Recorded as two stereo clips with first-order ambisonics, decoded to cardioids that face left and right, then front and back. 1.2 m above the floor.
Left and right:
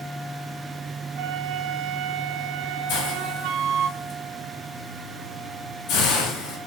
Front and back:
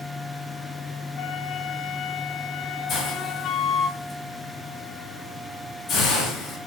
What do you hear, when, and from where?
1.2 s a flute: 55° right, 0.7 m
2.9 s a hiss: 55° left, 5 m